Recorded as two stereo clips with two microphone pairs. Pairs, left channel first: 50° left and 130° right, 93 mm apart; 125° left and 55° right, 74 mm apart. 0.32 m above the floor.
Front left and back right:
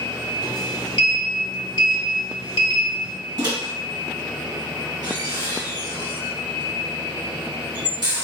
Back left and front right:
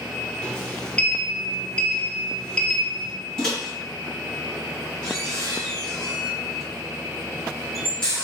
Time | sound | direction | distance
0.4 | a sliding door | 50° left | 0.8 m
3.4 | a microwave | 155° right | 1.8 m